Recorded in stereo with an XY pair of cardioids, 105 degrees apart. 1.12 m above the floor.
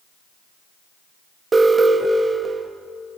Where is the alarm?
30° right, 0.7 m.